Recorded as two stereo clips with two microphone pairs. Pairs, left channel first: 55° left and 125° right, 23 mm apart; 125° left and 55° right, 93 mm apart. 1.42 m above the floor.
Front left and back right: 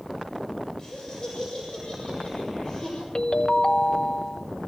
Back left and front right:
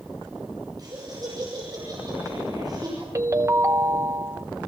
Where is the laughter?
5° right, 6.5 m.